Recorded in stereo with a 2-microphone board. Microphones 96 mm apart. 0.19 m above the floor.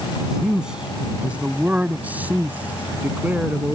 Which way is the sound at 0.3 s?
5° right (ahead or behind).